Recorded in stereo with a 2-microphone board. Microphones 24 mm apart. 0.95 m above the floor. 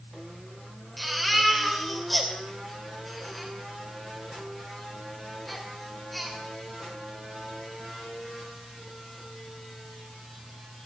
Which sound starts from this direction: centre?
A baby crying, at 1.0 s.